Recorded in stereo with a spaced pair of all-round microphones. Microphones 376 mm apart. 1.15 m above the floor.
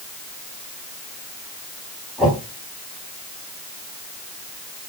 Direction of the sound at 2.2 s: Centre (ahead or behind).